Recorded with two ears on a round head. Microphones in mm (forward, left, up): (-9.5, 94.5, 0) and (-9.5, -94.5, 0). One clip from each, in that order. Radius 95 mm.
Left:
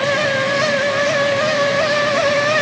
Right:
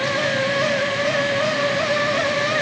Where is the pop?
I don't hear a pop.